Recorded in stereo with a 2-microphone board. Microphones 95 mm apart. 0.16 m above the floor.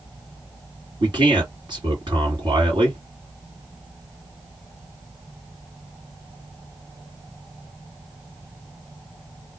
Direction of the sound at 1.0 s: 55° right (ahead or behind).